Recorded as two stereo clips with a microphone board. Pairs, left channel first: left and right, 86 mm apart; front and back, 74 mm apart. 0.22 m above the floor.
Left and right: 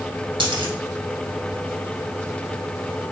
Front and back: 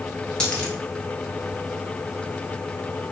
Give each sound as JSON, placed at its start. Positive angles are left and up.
{"t": 0.4, "sound": "a dropped coin", "azimuth_deg": -80, "distance_m": 1.6}